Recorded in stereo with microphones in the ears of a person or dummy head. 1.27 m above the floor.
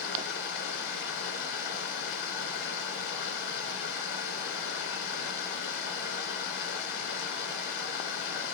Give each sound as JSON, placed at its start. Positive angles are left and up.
{"t": 0.0, "sound": "running water", "side_deg": 55, "distance_m": 2.5}